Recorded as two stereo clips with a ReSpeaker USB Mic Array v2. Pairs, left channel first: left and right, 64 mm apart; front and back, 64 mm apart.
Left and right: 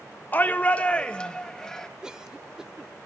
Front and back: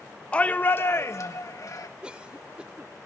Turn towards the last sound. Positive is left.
turn(degrees=-145)